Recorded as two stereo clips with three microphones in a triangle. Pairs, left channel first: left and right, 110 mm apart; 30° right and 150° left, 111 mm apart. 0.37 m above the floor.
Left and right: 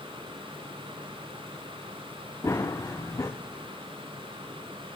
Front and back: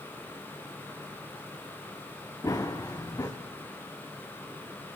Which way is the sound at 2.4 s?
30° left.